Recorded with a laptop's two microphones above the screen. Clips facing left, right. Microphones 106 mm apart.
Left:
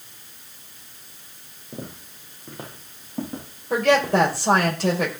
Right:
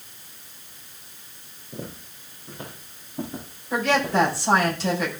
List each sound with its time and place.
1.7 s footsteps: 40° left (ahead or behind), 4.5 m; by 4.7 s 65° left (ahead or behind), 7.5 m
3.7 s a woman speaking: 60° left (ahead or behind), 4.5 m